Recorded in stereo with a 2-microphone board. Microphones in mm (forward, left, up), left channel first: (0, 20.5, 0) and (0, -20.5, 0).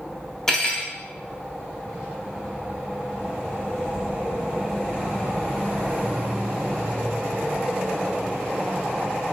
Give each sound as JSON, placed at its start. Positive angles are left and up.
{"t": 0.5, "sound": "cutlery clinking", "side_deg": 15, "distance_m": 0.8}